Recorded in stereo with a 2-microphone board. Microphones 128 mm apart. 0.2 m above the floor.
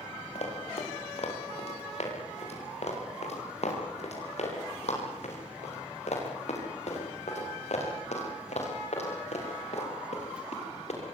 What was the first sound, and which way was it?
Running footsteps, 65° left (ahead or behind).